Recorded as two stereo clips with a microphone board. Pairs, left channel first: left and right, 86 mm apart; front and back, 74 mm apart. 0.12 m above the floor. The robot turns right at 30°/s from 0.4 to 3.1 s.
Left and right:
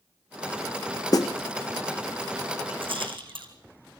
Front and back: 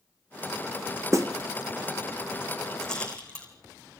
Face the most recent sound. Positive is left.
turn(degrees=-75)